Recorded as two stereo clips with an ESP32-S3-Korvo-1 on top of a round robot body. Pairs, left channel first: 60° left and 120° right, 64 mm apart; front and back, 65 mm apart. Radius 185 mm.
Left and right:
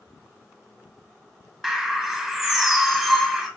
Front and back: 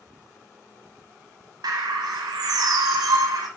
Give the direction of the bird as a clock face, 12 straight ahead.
7 o'clock.